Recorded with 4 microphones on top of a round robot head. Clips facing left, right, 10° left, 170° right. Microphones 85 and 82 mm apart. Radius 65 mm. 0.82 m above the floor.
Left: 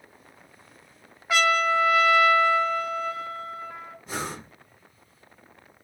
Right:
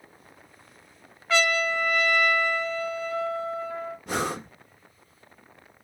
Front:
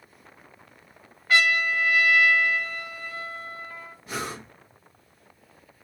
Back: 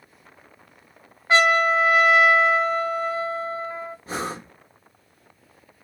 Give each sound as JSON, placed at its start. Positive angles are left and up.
{"t": 1.3, "sound": "a trumpet", "azimuth_deg": 160, "distance_m": 0.5}
{"t": 4.1, "sound": "breathing", "azimuth_deg": -110, "distance_m": 0.9}